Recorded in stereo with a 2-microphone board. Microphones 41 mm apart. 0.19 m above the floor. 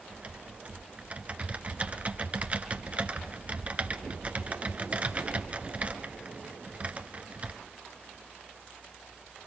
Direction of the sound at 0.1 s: 35° right (ahead or behind).